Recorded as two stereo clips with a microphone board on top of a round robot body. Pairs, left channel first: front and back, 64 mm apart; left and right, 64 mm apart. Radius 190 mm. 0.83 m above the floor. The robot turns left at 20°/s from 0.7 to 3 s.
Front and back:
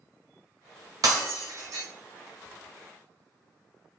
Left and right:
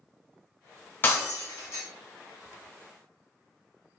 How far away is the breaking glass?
About 0.8 m.